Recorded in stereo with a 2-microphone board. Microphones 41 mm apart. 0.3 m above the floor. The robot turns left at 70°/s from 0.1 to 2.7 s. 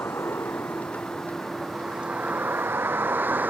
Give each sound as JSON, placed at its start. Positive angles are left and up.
{"t": 0.0, "sound": "a vehicle", "side_deg": 85}